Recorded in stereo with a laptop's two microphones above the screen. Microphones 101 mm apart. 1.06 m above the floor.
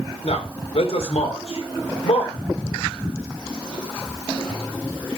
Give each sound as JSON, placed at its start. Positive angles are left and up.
{"t": 0.2, "sound": "a man speaking", "side_deg": 75, "distance_m": 3.0}